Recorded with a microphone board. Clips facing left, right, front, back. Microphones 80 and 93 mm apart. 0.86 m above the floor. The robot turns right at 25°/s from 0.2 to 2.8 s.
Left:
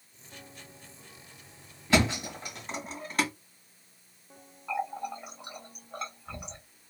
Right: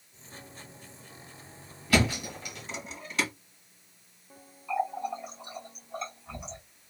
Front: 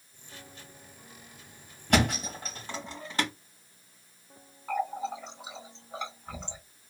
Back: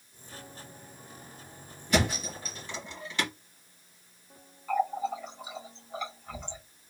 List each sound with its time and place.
1.9 s a thud: 25° left, 1.6 m; by 3.3 s 45° left, 1.6 m
4.7 s a running tap: 65° left, 2 m